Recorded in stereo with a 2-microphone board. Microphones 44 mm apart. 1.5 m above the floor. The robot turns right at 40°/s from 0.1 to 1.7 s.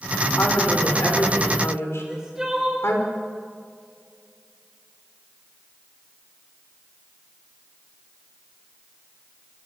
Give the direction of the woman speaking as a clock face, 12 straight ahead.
10 o'clock.